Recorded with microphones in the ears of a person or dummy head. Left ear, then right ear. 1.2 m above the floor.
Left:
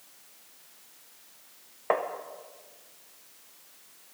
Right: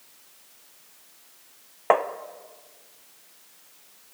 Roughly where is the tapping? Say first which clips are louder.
Right 7 dB; right.